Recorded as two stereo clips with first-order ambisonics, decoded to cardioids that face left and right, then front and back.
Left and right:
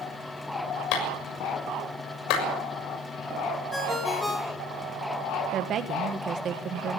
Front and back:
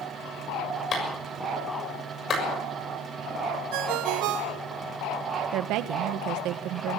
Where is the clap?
60° left, 6.5 m.